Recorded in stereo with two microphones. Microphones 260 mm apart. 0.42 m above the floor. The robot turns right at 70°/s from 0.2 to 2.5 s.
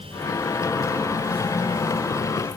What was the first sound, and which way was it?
Only background noise.